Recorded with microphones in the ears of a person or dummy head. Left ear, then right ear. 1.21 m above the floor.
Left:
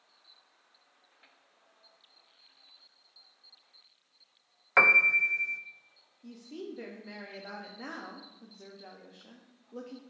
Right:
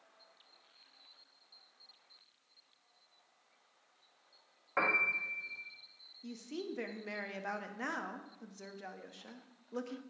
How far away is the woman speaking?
About 0.6 m.